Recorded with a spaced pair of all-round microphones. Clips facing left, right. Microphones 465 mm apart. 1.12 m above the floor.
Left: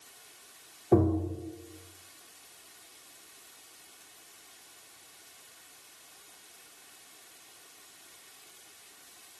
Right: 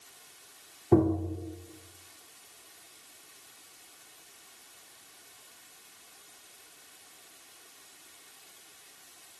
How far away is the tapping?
About 0.8 m.